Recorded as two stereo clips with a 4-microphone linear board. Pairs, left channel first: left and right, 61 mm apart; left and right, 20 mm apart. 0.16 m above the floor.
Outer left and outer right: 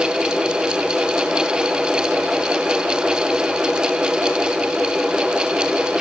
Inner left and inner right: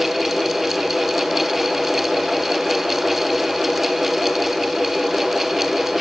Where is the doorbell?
I don't hear a doorbell.